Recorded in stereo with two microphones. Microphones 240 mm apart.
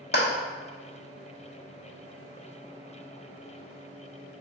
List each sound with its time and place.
0.1 s a clap: 45° left (ahead or behind), 1.1 m